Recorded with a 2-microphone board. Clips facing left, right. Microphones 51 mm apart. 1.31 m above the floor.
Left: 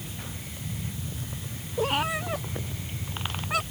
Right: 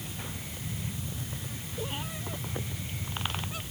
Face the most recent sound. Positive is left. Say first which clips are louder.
# left 12 dB
turn(degrees=80)